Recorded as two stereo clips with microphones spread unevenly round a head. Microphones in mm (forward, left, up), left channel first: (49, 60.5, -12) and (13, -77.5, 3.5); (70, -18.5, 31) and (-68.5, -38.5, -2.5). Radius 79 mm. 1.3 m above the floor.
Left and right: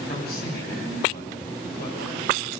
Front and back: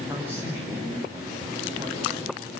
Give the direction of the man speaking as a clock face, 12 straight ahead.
8 o'clock.